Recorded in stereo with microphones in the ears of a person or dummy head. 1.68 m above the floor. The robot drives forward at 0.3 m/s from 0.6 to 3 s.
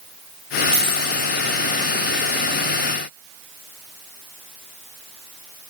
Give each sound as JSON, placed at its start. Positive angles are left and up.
{"t": 0.7, "sound": "a dropped coin", "side_deg": 55, "distance_m": 1.9}